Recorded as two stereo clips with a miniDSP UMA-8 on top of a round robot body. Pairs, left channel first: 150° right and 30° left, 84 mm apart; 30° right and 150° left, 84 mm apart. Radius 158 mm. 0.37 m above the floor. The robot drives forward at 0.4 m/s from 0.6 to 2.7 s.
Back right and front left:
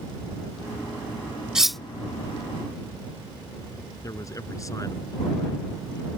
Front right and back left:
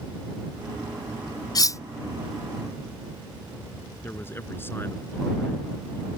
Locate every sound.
1.6 s cutlery clinking: 50° right; by 1.8 s 65° right
4.0 s a man speaking: 95° right